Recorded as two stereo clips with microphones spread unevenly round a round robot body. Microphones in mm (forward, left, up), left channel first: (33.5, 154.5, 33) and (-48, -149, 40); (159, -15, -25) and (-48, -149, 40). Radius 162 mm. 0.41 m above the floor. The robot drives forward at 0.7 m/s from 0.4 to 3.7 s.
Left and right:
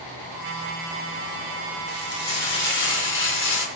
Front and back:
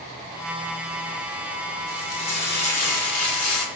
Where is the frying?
15° left, 4.5 m; by 3.7 s 25° left, 3 m.